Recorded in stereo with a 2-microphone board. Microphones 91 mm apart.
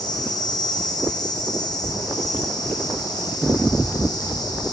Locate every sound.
0.0 s an insect: 45° left (ahead or behind), 9.5 m